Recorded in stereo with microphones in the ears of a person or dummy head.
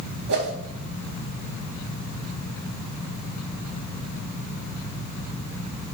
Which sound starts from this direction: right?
A whoosh, at 0.3 s.